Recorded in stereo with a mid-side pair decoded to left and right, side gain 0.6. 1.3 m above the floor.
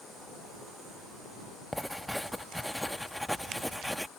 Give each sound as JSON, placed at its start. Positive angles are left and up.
{"t": 1.7, "sound": "writing", "azimuth_deg": 5}